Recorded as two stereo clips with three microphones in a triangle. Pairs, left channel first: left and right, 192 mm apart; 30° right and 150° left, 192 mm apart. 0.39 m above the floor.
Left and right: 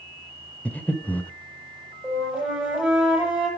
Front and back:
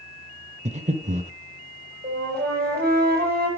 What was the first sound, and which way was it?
Breathing, 165° left.